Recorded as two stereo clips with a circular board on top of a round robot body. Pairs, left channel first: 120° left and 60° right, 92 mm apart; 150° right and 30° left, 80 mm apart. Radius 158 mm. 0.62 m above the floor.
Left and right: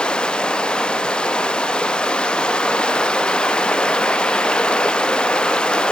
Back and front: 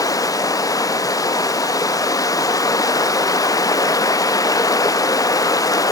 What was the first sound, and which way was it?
Running water, 165° right.